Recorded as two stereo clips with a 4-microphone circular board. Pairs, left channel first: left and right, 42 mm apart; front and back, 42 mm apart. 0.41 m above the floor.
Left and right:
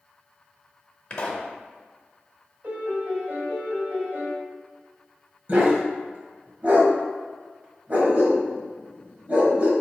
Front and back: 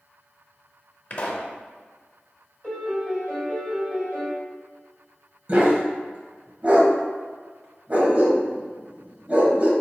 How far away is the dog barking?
About 1.0 m.